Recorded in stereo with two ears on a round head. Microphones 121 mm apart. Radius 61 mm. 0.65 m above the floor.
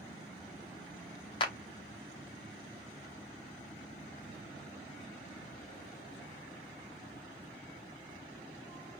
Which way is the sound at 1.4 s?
35° left (ahead or behind).